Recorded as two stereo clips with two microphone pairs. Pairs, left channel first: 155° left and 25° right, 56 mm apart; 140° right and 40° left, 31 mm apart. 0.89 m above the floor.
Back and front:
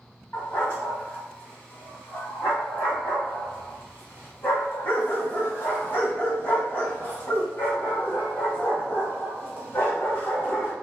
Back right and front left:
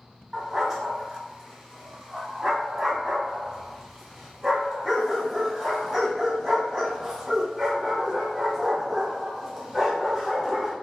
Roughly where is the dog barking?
Behind left.